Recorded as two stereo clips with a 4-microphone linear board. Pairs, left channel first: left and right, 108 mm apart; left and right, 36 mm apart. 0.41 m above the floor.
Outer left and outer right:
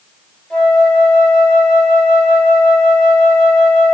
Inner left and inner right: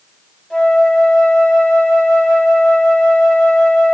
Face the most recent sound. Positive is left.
turn(degrees=5)  # may be behind; listen again after turning